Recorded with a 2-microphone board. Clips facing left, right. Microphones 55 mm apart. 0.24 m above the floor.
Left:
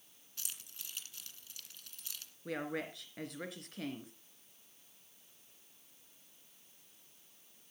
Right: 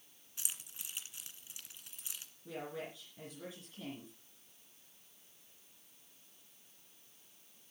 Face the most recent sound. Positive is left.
turn(degrees=65)  # may be behind; listen again after turning